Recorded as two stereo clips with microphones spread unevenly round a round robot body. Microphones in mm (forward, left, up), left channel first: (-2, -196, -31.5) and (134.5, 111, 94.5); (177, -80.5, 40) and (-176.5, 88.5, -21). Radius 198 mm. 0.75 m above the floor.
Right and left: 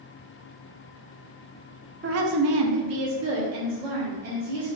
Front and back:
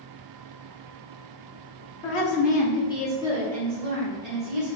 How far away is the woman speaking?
About 0.6 m.